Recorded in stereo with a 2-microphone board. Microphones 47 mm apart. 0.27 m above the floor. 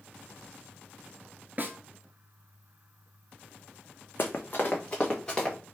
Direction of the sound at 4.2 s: 50° left (ahead or behind).